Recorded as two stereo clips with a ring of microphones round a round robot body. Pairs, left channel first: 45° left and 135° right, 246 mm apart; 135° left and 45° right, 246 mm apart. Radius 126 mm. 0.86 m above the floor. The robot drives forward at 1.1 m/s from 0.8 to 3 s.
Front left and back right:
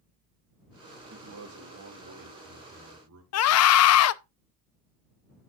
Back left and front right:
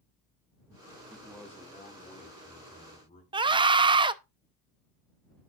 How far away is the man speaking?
About 1.3 m.